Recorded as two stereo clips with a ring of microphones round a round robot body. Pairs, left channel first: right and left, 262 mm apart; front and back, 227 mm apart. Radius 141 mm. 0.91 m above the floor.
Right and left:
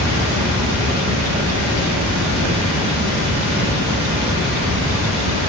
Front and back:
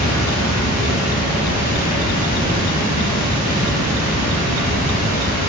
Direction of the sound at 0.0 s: 45° left.